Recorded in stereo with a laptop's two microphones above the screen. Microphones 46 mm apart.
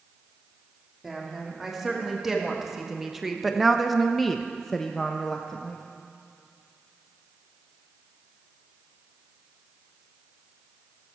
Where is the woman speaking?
10° right (ahead or behind), 2.5 m; by 5.8 s 10° left (ahead or behind), 1.5 m.